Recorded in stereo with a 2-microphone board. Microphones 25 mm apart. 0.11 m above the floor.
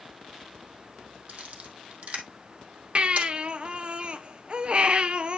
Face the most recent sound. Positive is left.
turn(degrees=-45)  # may be behind; listen again after turning